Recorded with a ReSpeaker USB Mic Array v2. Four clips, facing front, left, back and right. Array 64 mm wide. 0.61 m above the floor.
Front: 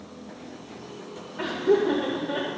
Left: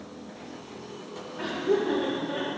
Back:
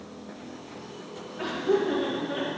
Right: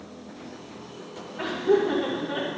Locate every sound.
1.4 s laughter: 10° right, 2.5 m